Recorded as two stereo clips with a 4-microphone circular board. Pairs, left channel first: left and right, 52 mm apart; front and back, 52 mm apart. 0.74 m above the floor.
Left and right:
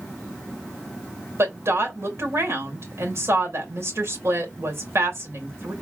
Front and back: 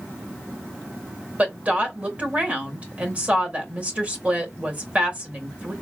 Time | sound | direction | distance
1.4 | a woman speaking | 120° right | 2.5 m